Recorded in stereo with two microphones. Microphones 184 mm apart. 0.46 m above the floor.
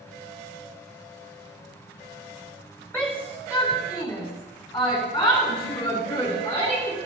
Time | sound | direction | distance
2.9 | a shout | 10° left (ahead or behind) | 2.5 m